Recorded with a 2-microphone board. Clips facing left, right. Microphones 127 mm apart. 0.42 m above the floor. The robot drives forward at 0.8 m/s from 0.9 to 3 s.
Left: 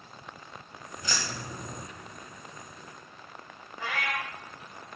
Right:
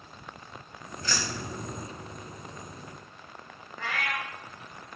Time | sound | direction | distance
1.0 | keys jangling | 15° left (ahead or behind) | 2.0 m
3.8 | a cat meowing | 15° left (ahead or behind) | 4 m